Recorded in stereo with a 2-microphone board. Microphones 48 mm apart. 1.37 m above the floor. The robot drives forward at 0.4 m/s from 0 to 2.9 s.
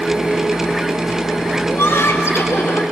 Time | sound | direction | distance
1.7 | laughter | 65° left (ahead or behind) | 4 m